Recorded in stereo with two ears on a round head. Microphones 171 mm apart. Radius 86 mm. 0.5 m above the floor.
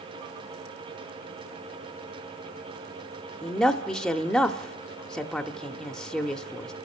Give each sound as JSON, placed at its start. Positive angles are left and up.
{"t": 3.4, "sound": "a woman speaking", "side_deg": 5, "distance_m": 0.8}